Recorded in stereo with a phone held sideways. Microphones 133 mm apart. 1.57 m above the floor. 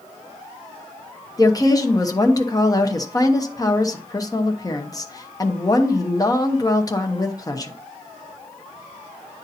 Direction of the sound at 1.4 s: 30° left (ahead or behind).